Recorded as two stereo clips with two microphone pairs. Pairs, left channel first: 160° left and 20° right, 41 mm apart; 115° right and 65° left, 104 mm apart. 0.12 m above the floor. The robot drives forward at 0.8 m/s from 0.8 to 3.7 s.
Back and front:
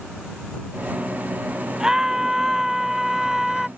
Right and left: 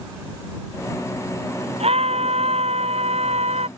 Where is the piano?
I don't hear a piano.